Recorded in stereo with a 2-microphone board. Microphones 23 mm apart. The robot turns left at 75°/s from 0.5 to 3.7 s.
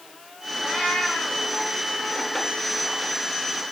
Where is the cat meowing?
160° left, 6.5 m; by 1.4 s 100° left, 6.5 m.